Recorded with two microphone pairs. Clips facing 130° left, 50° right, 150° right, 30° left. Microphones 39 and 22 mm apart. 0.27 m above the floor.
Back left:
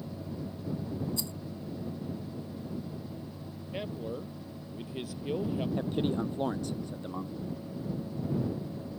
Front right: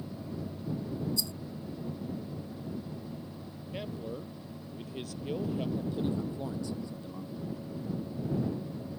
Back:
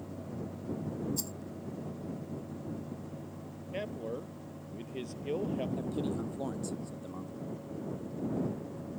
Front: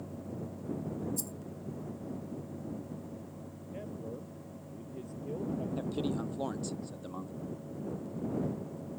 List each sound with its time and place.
1.2 s a rattle: 170° left
3.7 s a man speaking: 150° right
5.8 s a man speaking: 95° left